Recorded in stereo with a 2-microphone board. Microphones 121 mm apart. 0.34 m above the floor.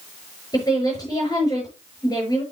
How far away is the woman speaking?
About 6 m.